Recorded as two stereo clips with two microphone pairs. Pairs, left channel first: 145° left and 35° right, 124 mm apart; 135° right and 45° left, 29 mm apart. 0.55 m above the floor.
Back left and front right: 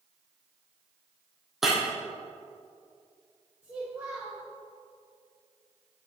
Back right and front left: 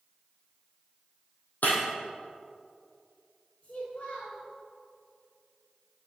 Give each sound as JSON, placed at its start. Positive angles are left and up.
{"t": 1.6, "sound": "breaking glass", "azimuth_deg": -120, "distance_m": 2.5}
{"t": 3.6, "sound": "a child speaking", "azimuth_deg": -105, "distance_m": 1.5}